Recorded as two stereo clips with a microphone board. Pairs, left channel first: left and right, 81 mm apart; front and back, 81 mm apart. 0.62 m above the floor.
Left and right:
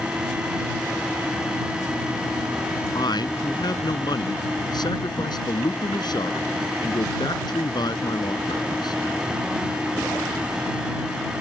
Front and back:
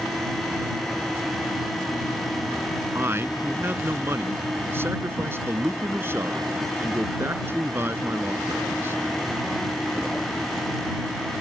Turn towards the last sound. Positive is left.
turn(degrees=120)